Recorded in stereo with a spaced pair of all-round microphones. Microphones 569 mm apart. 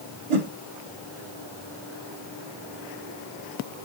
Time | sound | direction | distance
0.3 | a whoosh | 65° right (ahead or behind) | 0.9 m